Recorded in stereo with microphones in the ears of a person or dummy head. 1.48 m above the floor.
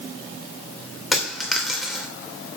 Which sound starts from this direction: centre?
A dropped coin, at 1.1 s.